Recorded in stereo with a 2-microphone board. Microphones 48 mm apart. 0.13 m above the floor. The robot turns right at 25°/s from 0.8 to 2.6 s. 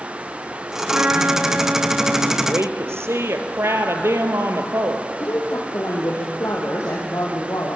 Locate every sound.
0.9 s a trumpet: 115° right, 1.9 m; by 2.3 s 80° right, 1.9 m
2.4 s a woman speaking: 65° right (ahead or behind), 2.5 m
5.2 s a woman speaking: 75° left (ahead or behind), 4 m